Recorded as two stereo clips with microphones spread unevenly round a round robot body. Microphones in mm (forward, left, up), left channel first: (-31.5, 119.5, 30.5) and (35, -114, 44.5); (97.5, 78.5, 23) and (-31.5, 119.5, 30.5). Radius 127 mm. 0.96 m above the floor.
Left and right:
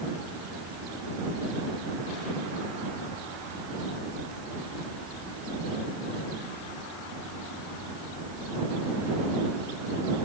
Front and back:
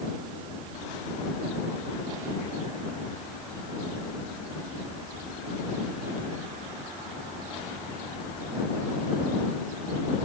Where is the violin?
No violin in this recording.